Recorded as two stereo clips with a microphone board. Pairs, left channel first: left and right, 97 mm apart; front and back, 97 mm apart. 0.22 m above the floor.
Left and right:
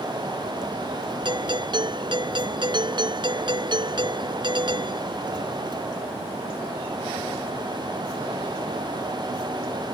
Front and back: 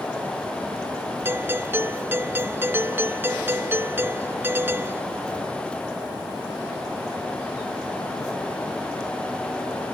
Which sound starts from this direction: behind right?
A doorbell, at 1.2 s.